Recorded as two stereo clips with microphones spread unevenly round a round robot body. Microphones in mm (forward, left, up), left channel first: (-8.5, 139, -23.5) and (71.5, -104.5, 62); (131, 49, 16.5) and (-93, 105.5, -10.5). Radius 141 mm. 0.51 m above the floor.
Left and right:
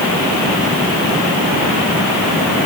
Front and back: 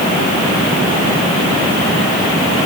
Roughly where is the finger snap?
I don't hear a finger snap.